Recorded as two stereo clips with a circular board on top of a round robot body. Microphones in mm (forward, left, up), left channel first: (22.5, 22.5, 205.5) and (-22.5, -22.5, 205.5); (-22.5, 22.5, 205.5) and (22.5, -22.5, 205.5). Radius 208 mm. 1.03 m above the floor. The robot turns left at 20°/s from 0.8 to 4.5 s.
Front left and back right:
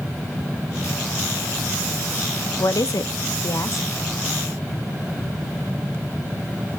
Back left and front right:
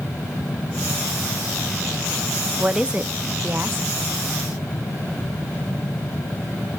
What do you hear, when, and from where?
2.6 s a woman speaking: 35° left, 0.6 m; by 3.9 s 10° left, 0.6 m